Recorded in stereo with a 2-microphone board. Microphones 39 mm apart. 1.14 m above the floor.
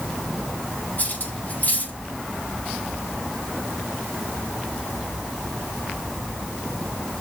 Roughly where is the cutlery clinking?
Left.